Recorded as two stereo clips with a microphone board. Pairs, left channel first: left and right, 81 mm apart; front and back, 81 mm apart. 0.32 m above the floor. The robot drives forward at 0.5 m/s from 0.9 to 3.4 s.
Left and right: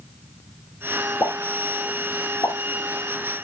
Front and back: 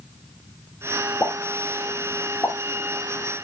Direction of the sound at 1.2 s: 50° left.